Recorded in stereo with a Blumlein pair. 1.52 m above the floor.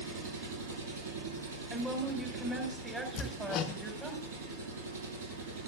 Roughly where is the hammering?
Ahead left.